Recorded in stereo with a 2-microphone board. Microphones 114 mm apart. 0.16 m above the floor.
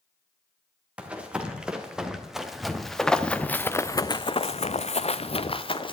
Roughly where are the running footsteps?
Centre.